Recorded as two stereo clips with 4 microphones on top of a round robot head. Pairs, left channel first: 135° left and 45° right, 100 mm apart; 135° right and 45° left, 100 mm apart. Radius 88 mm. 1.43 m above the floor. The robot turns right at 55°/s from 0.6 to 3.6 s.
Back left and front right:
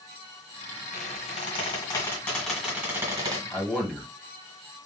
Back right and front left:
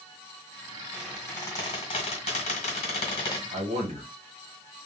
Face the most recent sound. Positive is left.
turn(degrees=55)